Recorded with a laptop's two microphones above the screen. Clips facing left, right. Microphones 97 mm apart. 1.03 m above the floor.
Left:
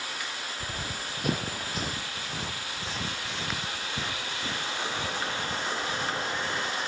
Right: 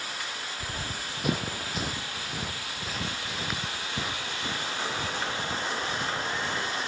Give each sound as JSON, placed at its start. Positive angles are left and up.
{"t": 0.6, "sound": "running footsteps", "side_deg": 0}